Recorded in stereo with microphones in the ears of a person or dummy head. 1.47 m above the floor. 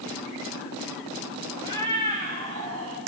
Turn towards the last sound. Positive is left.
turn(degrees=-65)  # may be behind; listen again after turning